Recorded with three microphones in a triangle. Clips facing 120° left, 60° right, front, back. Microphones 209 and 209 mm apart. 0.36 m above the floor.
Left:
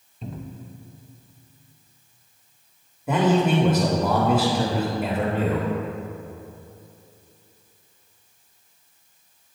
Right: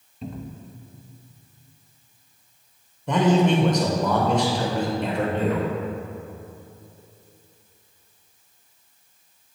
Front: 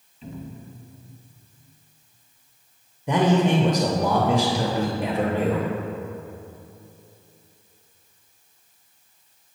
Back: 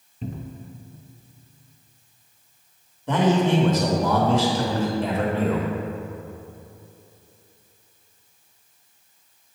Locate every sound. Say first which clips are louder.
0.2 s a cupboard door: right 1 dB, back 2 dB; 150° right, 0.6 m
3.1 s a man speaking: right 1 dB, even; 50° left, 0.8 m